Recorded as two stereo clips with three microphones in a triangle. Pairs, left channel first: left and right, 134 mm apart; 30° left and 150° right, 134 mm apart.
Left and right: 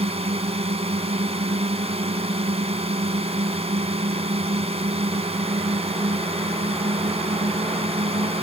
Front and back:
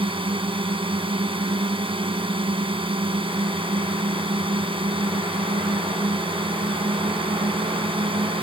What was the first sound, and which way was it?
A drone, 115° right.